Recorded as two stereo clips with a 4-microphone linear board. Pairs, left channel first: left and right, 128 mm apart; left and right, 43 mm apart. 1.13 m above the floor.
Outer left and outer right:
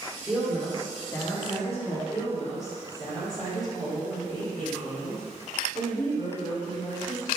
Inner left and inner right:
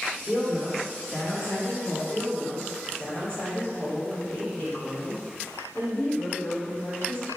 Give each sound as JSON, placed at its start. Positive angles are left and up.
{"t": 0.2, "sound": "a woman speaking", "side_deg": -5, "distance_m": 1.3}
{"t": 2.1, "sound": "a woman speaking", "side_deg": 60, "distance_m": 1.8}